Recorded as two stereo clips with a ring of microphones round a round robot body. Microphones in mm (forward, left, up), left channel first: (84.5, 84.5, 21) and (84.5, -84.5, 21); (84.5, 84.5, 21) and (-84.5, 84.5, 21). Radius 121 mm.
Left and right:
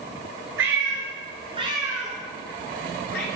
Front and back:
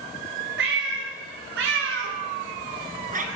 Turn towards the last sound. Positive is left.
turn(degrees=140)